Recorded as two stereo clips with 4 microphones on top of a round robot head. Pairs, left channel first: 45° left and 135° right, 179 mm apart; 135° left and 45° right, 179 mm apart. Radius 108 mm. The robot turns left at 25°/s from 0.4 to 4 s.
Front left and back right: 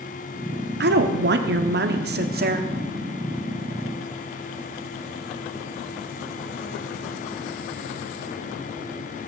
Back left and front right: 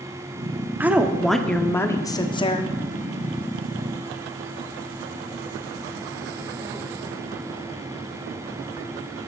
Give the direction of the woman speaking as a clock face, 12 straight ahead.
4 o'clock.